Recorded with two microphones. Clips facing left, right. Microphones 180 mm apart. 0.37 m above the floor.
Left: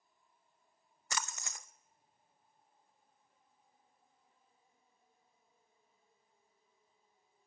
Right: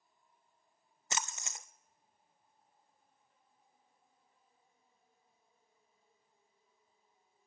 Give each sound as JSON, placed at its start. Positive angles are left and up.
{"t": 1.1, "sound": "a splash", "side_deg": -20, "distance_m": 0.6}